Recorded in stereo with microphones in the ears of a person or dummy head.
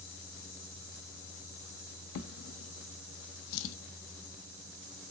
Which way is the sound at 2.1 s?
65° left (ahead or behind).